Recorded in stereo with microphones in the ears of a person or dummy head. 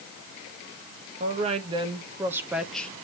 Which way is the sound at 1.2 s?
40° right (ahead or behind).